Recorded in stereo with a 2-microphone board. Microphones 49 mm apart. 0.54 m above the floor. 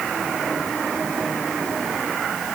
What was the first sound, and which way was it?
Only background noise.